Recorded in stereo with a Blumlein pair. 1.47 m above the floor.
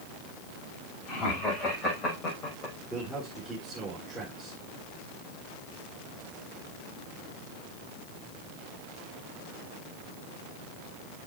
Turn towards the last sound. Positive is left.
turn(degrees=0)